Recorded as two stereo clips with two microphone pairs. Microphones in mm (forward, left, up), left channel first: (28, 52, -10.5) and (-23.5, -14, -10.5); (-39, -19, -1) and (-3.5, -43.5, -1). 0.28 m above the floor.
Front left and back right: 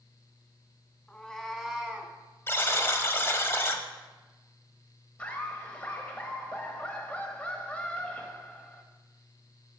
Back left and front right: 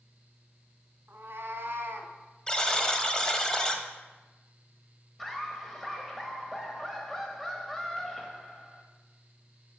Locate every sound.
1.1 s a cat meowing: 25° right, 1.0 m; by 2.1 s 60° right, 1.1 m
2.5 s a buzzer: 85° left, 0.8 m
5.2 s laughter: 70° left, 0.9 m